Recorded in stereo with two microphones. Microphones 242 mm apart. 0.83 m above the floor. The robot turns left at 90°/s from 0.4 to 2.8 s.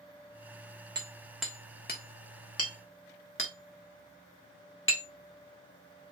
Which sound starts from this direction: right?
Hammering, at 0.9 s.